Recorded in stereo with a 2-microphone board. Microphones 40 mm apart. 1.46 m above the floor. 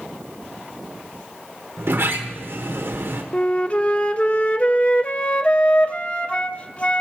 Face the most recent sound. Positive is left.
turn(degrees=35)  # may be behind; listen again after turning